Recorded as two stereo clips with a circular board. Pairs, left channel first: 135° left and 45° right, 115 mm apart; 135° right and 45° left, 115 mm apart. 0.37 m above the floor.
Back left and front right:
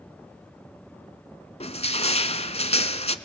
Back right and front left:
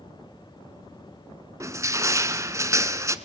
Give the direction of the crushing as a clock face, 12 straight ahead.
8 o'clock.